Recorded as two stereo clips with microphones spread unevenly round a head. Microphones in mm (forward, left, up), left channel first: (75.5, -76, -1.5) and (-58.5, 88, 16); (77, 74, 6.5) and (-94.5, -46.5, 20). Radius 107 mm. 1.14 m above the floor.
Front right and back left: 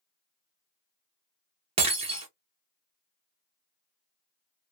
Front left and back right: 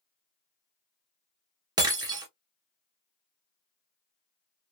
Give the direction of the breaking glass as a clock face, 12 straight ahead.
7 o'clock.